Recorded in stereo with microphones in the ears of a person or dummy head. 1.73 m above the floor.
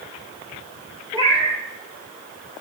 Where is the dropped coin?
No dropped coin in this recording.